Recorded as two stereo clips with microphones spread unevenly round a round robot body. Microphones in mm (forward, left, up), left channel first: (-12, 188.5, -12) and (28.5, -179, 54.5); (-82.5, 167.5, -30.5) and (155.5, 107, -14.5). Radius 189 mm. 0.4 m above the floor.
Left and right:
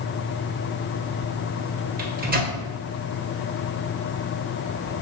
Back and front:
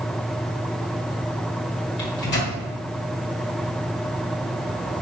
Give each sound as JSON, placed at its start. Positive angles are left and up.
{"t": 2.0, "sound": "a microwave", "azimuth_deg": -155, "distance_m": 1.8}